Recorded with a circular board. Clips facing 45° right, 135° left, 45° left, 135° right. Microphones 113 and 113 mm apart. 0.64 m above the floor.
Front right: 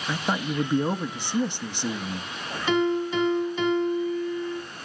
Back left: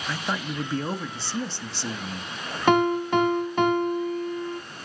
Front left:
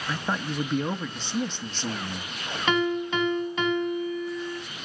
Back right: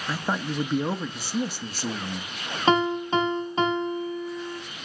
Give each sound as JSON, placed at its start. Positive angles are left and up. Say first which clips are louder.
{"t": 0.1, "sound": "a man speaking", "louder": "front right 3 dB, back right 1 dB", "azimuth_deg": -75, "distance_m": 0.9}
{"t": 2.7, "sound": "a piano", "louder": "back left 3 dB, back right 3 dB", "azimuth_deg": 170, "distance_m": 1.9}